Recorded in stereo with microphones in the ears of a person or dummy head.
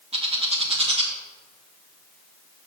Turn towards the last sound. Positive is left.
turn(degrees=-30)  # may be behind; listen again after turning